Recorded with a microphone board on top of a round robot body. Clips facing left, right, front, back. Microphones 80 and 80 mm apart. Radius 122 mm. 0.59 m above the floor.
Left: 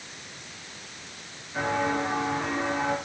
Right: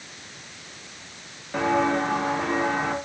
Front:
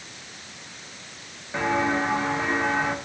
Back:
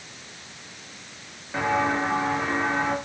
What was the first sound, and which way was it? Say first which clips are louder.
Footsteps: right 4 dB, even; 90° right.